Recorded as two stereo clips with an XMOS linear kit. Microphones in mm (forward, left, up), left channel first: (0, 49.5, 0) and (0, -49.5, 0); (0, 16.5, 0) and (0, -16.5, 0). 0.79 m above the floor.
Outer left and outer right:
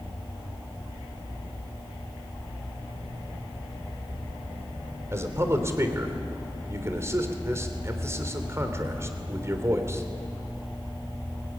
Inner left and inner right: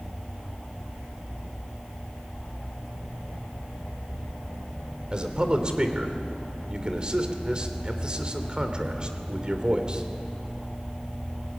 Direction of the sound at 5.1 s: 30° right (ahead or behind).